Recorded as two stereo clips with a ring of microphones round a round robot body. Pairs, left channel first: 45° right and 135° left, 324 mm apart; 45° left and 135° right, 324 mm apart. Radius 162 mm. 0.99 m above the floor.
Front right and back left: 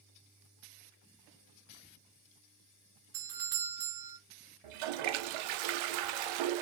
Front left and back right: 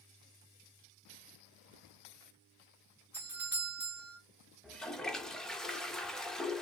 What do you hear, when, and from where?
3.1 s a doorbell: 140° left, 3 m
4.6 s a toilet flushing: 135° left, 0.6 m